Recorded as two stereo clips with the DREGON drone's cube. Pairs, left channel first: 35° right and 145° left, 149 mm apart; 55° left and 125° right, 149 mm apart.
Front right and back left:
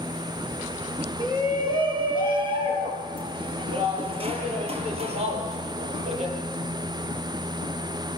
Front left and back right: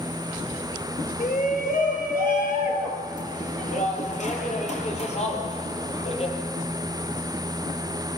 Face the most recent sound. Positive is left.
turn(degrees=100)